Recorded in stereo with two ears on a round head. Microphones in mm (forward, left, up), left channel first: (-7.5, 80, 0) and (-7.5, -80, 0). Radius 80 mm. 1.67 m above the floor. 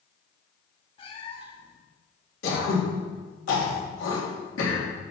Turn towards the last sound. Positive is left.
turn(degrees=80)